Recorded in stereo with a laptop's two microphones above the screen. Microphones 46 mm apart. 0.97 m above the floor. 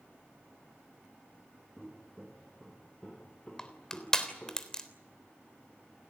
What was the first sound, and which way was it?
Footsteps, 5° right (ahead or behind).